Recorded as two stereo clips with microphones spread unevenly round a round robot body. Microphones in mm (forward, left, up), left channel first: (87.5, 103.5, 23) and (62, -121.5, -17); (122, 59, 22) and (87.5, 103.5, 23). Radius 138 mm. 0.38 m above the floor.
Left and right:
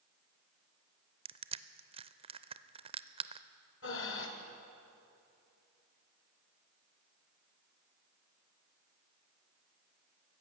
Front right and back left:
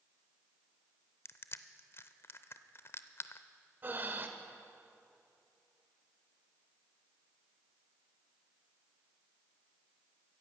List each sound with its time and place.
1.2 s crushing: 50° right, 0.5 m
3.8 s breathing: 100° left, 1.4 m